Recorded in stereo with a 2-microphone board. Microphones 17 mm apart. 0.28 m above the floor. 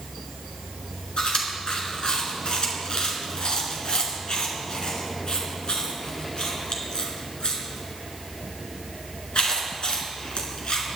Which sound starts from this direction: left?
Chewing, at 1.2 s.